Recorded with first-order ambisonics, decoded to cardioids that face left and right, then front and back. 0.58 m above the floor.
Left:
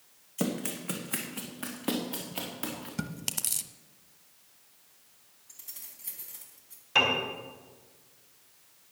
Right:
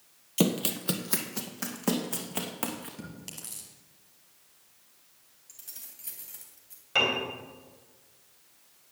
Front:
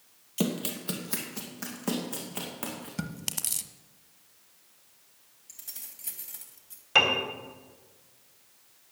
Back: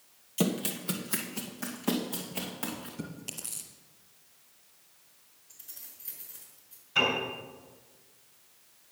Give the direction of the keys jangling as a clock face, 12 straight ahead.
1 o'clock.